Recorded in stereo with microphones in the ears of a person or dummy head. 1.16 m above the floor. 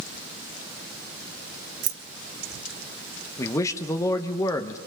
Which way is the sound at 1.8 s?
60° right (ahead or behind).